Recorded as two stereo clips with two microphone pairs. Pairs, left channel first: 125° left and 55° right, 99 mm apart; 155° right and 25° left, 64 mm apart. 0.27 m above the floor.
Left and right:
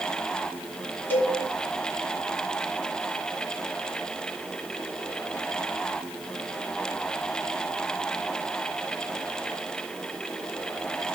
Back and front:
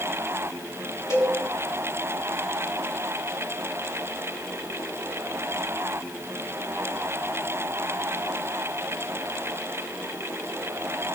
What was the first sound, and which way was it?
A cowbell, 175° right.